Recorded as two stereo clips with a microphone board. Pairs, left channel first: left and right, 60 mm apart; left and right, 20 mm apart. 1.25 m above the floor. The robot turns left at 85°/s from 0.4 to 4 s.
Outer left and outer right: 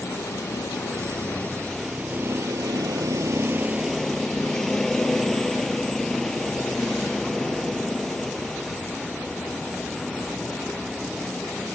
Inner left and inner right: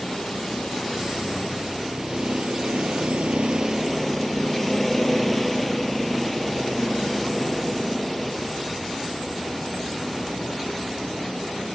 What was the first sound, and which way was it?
A vehicle, 120° left.